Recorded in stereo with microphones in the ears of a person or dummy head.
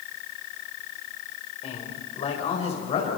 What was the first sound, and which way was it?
A man speaking, 25° left (ahead or behind).